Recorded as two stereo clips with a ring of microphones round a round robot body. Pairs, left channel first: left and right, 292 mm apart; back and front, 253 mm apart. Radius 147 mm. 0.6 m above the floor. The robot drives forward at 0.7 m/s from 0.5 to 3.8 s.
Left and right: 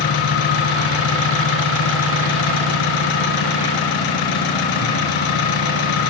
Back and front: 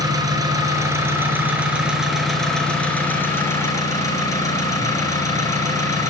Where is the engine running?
75° left, 5 m; by 6.1 s 100° left, 5 m.